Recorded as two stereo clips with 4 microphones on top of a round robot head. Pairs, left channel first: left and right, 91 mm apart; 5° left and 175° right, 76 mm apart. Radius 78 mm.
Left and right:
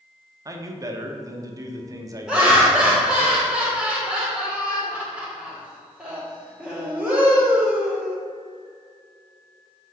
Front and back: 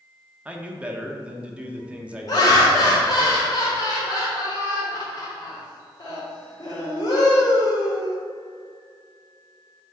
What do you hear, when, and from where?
0.5 s a man speaking: 110° right, 1.0 m
2.3 s laughter: 5° right, 1.5 m